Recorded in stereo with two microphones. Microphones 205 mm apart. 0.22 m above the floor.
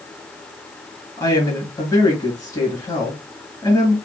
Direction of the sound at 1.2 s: 20° left (ahead or behind).